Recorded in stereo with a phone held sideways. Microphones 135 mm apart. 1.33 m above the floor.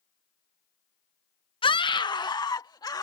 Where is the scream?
40° left (ahead or behind); by 3.0 s 30° left (ahead or behind).